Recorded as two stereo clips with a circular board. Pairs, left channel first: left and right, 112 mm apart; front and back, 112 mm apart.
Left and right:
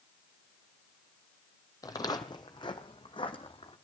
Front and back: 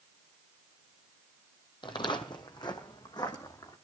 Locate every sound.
1.8 s footsteps: 35° left, 1.3 m; by 3.8 s 50° left, 2.5 m